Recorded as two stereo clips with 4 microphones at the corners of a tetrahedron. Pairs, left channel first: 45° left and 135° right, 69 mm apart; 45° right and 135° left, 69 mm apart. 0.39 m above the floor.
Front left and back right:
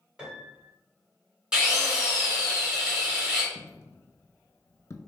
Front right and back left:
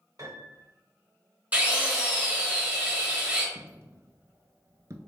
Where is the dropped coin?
90° left, 0.6 m.